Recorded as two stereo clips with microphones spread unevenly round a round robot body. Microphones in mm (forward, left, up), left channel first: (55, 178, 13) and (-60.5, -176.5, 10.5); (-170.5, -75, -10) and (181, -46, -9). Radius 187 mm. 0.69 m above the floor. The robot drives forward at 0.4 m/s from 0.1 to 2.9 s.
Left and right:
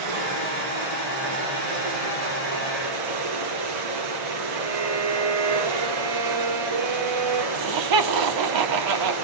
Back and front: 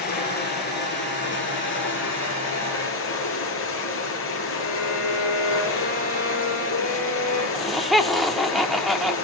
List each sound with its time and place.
0.0 s running water: 110° right, 5.5 m; by 9.2 s 120° right, 6 m
4.6 s a violin: 130° right, 8.5 m
7.5 s laughter: 85° right, 1.5 m